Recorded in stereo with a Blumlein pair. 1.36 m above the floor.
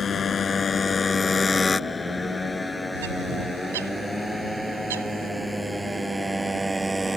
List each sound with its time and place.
0.0 s a motorcycle: 20° left; by 7.2 s 10° right
2.9 s a bird: 60° right